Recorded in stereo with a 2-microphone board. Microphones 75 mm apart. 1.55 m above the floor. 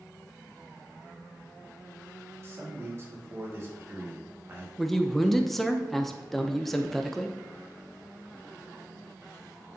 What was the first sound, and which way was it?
A man speaking, 35° right (ahead or behind).